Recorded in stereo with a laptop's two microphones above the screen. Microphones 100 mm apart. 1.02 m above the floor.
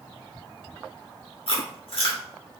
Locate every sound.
1.5 s chewing: 70° left (ahead or behind), 1.7 m